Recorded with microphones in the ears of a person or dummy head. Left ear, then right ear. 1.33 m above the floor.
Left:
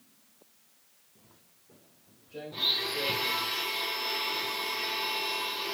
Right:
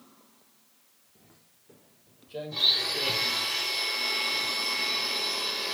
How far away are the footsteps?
About 1.7 m.